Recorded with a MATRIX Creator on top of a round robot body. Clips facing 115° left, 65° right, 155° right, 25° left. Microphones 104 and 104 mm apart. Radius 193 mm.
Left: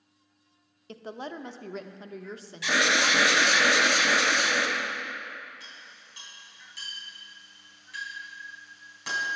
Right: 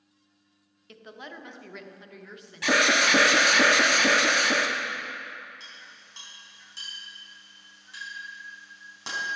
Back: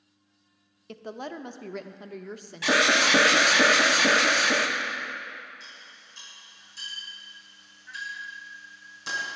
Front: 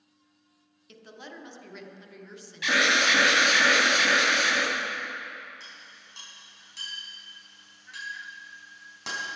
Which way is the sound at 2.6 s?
105° right.